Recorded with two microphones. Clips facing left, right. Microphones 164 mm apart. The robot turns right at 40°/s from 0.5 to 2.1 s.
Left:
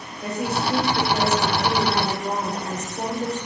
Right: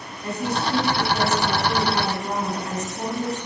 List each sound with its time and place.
0.2 s a woman speaking: 80° left, 4 m; by 3.4 s 145° left, 4 m